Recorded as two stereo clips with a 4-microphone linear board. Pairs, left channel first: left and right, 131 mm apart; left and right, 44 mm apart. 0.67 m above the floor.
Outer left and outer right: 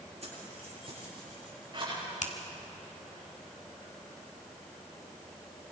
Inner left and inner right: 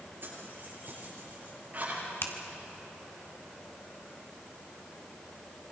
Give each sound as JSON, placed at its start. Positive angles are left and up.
{"t": 0.2, "sound": "keys jangling", "side_deg": -50, "distance_m": 8.5}
{"t": 2.2, "sound": "a finger snap", "side_deg": 60, "distance_m": 2.0}